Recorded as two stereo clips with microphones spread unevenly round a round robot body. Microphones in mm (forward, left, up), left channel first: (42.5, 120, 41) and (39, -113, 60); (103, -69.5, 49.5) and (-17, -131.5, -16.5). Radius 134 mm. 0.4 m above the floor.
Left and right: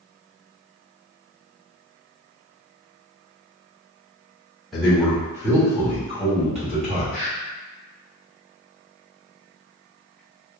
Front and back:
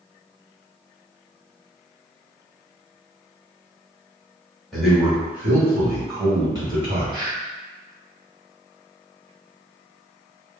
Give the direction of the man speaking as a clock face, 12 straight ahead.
6 o'clock.